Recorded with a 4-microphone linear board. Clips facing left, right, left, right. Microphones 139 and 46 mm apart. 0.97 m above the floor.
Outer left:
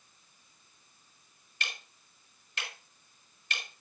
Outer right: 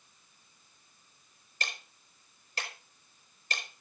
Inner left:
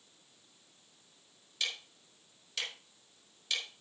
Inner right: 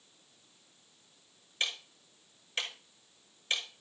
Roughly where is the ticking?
Right.